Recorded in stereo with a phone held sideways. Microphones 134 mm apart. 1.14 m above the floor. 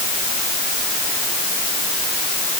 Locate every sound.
Only background noise.